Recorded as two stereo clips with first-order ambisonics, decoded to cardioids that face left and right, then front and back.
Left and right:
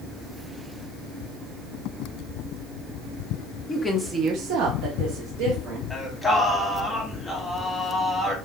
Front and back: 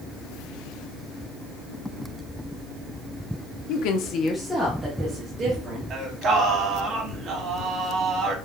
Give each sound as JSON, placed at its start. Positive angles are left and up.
{"t": 3.7, "sound": "a woman speaking", "azimuth_deg": 20, "distance_m": 1.0}
{"t": 5.9, "sound": "singing", "azimuth_deg": 170, "distance_m": 1.4}